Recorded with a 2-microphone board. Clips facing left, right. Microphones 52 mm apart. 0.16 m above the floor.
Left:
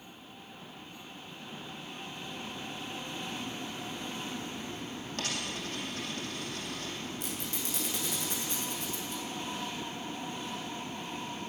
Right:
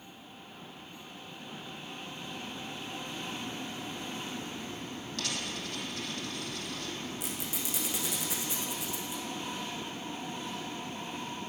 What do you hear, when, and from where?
5.2 s a dropped coin: 45° left (ahead or behind), 3 m
7.2 s a squeak: 5° right (ahead or behind), 3 m